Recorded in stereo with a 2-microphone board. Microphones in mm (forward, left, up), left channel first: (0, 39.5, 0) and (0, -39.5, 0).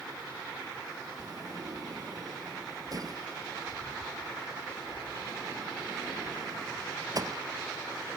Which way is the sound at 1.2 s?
50° right (ahead or behind).